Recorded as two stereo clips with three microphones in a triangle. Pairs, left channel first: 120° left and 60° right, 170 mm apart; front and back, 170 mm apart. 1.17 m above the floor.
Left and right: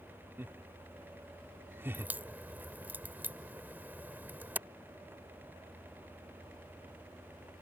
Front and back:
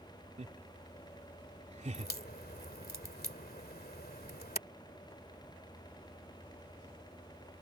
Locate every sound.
0.4 s laughter: 135° right
1.9 s a crack: 20° left